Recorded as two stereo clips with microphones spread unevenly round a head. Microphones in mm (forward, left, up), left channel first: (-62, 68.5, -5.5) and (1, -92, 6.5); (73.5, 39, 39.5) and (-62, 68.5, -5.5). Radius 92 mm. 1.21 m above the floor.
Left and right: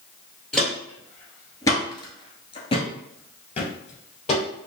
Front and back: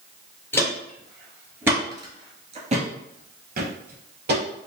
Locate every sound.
0.5 s footsteps: 20° left, 1.4 m; by 4.7 s 160° left, 2 m